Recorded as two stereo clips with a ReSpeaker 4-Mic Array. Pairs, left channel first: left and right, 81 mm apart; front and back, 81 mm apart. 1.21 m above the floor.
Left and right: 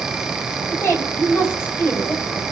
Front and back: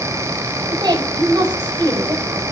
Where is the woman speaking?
150° left, 5 m.